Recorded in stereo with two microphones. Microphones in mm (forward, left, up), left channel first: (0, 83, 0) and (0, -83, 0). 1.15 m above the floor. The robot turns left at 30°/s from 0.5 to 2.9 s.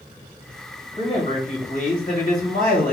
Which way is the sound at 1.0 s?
145° left.